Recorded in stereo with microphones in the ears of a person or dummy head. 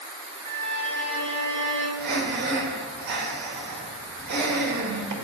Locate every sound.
0.5 s a violin: 10° left (ahead or behind), 3 m
2.0 s breathing: 55° right (ahead or behind), 2.0 m